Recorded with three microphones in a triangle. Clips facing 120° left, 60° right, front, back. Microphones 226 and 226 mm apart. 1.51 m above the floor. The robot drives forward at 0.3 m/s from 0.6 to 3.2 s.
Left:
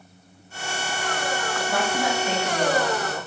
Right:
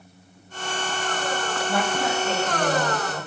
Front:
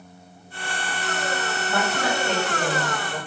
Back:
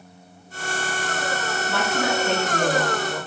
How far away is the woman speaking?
About 2 m.